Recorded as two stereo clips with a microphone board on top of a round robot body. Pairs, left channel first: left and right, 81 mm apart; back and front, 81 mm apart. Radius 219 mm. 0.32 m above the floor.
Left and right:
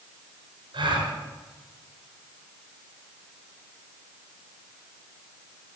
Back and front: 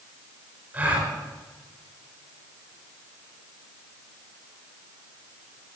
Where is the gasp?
70° right, 4 m.